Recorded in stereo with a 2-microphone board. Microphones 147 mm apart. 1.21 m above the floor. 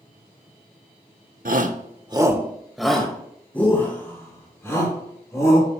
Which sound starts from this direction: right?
A shout, at 1.4 s.